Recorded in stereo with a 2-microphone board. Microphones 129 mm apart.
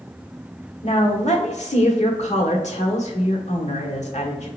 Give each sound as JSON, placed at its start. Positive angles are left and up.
{"t": 0.8, "sound": "a woman speaking", "side_deg": 65, "distance_m": 1.3}